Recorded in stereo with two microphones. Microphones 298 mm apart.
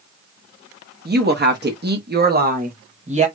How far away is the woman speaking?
About 1.1 m.